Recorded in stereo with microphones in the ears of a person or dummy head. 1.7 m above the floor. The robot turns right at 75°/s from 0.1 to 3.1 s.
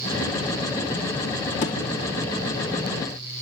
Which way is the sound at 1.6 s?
45° left (ahead or behind).